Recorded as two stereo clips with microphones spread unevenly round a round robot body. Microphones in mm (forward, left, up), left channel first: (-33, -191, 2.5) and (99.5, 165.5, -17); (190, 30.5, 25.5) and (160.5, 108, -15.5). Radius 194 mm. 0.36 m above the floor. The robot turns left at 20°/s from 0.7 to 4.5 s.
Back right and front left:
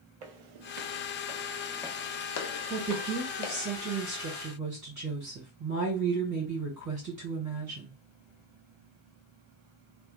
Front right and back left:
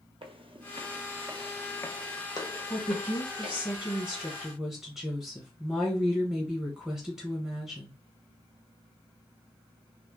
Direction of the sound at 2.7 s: 95° left.